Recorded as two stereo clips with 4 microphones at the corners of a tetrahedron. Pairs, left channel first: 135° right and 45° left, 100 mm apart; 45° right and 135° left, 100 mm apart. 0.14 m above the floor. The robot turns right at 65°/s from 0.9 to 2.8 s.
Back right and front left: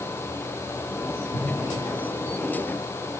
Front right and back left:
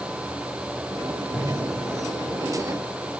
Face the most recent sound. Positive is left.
turn(degrees=0)